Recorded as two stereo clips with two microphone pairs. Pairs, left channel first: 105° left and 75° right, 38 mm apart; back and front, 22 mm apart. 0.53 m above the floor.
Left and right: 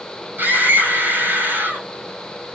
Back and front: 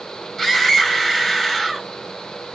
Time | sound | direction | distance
0.4 | a scream | 110° right | 4.5 m